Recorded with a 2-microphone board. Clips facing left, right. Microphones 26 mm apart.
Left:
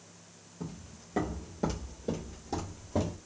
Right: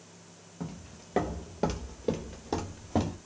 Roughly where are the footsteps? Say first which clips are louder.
Right 2 dB; right.